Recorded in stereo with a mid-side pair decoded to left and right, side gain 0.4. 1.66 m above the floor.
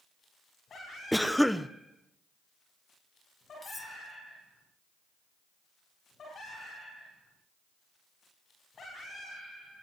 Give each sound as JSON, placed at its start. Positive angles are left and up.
{"t": 1.1, "sound": "a cough", "azimuth_deg": 0, "distance_m": 1.3}
{"t": 3.6, "sound": "cutlery clinking", "azimuth_deg": 25, "distance_m": 2.5}